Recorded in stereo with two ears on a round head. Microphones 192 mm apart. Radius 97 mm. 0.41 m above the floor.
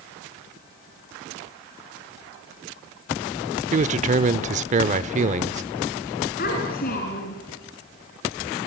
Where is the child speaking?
45° left (ahead or behind), 4 m.